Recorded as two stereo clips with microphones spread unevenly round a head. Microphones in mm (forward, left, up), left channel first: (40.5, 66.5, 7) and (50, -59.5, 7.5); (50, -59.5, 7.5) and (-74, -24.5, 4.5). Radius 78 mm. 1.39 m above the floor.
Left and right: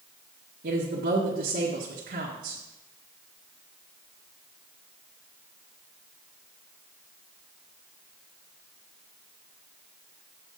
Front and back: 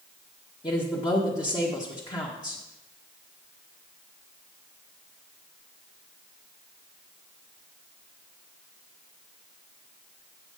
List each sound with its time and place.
0.6 s a woman speaking: 75° right, 1.4 m